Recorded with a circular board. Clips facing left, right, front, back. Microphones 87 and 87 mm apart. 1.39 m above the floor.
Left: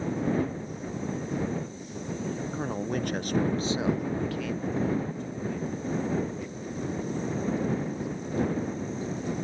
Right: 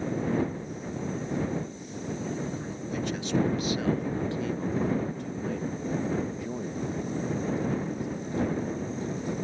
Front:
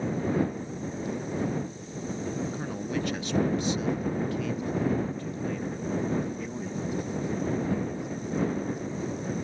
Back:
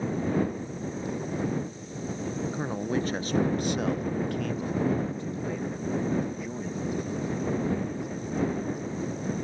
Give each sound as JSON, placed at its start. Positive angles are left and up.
{"t": 2.5, "sound": "a man speaking", "azimuth_deg": 120}